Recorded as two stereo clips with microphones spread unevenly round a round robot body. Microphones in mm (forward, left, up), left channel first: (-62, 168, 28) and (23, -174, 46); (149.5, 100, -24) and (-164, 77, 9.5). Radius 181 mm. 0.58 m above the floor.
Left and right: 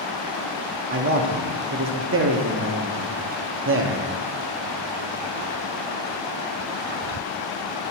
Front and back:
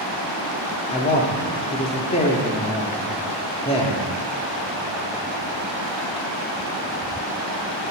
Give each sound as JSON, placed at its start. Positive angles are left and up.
{"t": 0.9, "sound": "a man speaking", "azimuth_deg": -45, "distance_m": 0.9}